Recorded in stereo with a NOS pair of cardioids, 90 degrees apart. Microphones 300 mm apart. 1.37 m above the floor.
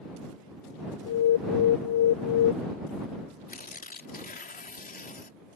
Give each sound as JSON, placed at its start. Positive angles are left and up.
{"t": 1.1, "sound": "an alarm", "azimuth_deg": 55}
{"t": 3.5, "sound": "tearing paper", "azimuth_deg": 25}